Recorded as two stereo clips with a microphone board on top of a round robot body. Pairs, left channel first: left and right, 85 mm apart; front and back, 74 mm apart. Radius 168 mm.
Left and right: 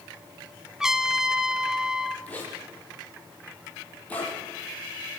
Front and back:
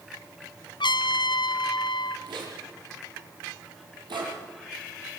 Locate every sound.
0.8 s a trumpet: 5° right, 1.3 m
2.3 s a zipper: 165° left, 7 m